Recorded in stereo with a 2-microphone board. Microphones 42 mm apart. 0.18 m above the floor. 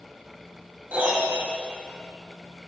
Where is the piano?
40° right (ahead or behind), 4.5 m.